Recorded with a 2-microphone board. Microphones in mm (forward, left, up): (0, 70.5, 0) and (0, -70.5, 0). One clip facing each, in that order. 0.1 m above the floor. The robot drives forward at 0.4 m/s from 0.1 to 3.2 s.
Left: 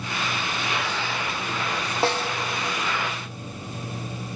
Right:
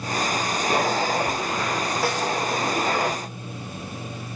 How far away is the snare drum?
About 1.0 m.